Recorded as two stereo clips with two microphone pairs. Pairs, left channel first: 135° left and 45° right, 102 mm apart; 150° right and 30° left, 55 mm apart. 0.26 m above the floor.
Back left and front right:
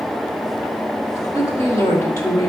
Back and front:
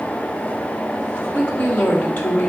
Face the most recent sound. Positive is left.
turn(degrees=180)